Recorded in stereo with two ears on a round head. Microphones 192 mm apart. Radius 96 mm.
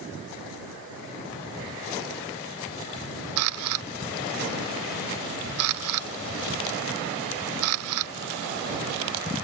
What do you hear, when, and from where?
3.4 s a camera shutter: 75° right (ahead or behind)